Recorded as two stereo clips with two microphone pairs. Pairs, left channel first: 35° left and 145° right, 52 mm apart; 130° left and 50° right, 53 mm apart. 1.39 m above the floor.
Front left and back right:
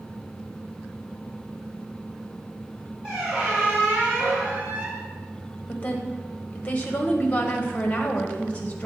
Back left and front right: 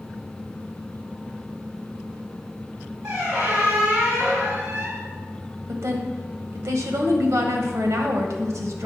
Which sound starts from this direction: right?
A squeak, at 3.0 s.